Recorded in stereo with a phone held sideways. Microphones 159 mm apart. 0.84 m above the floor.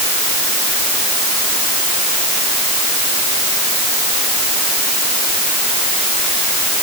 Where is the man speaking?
No man speaking in this recording.